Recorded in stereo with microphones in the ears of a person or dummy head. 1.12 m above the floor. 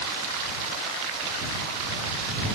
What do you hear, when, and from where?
Only background noise.